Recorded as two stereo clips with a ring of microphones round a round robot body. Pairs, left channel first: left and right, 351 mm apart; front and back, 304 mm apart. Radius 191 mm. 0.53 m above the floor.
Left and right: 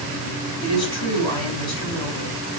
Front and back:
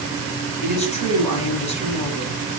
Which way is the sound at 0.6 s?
70° left.